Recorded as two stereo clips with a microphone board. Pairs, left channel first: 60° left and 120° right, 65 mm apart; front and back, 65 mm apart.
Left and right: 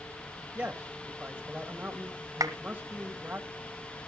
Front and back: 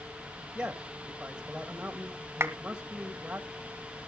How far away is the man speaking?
About 1.4 m.